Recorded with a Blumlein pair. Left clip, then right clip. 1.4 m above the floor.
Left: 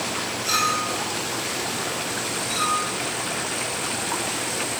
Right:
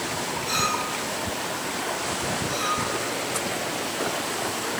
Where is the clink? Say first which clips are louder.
Left 3 dB; 50° left, 3.5 m.